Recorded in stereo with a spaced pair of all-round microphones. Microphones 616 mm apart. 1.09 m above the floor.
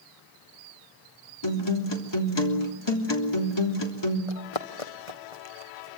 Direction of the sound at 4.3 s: 55° left (ahead or behind).